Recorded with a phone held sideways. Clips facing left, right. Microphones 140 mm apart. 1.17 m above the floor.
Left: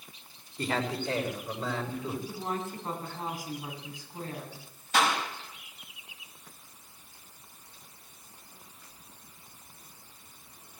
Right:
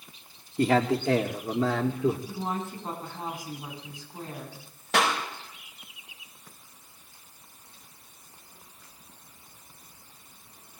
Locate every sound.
0.6 s a man speaking: 65° right (ahead or behind), 2 m; by 2.2 s 85° right, 2.5 m
2.3 s a woman speaking: 25° right (ahead or behind), 8.5 m
4.9 s a clap: 75° right (ahead or behind), 5.5 m